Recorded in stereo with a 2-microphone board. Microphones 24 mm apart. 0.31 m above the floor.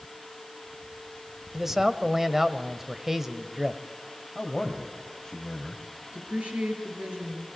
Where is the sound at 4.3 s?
15° left (ahead or behind), 1.9 m.